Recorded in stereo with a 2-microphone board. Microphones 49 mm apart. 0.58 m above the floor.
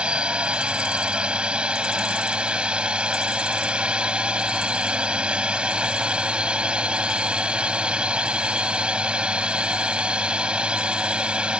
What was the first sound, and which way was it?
A drone, 20° right (ahead or behind).